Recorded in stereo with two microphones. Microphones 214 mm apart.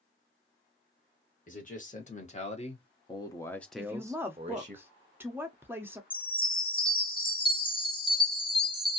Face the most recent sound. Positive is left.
turn(degrees=20)  # may be behind; listen again after turning